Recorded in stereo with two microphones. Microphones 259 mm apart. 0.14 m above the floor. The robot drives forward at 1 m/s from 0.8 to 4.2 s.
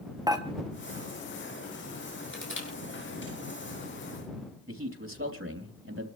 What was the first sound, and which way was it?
Dishes clattering, 15° right (ahead or behind).